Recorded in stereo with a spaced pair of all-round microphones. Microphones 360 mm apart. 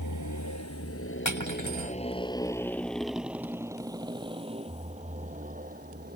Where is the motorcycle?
60° left (ahead or behind); by 6.2 s 25° right (ahead or behind).